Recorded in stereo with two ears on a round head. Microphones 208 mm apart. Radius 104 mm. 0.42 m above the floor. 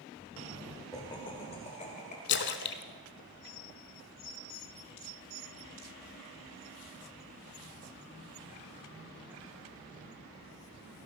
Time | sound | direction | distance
0.9 | laughter | 15° left (ahead or behind) | 1.6 m
2.3 | a splash | 50° left (ahead or behind) | 0.8 m